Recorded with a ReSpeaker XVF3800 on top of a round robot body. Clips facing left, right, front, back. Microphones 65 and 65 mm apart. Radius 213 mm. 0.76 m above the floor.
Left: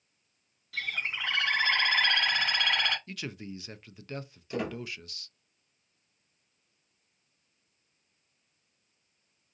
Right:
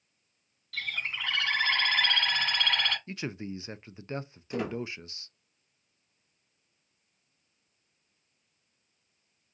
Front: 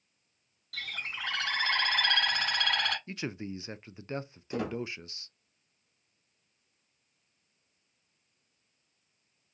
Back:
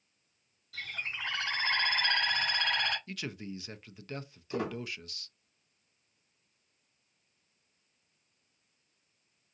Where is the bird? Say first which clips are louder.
Left 1 dB, even; 10° left, 1.8 m.